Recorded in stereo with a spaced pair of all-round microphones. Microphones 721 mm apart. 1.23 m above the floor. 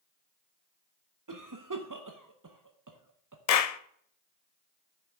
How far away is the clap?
About 0.5 m.